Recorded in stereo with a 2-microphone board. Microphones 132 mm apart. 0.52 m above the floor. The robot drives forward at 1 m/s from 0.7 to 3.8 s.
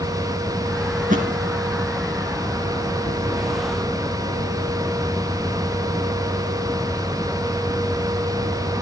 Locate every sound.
1.0 s a thud: 85° right, 4 m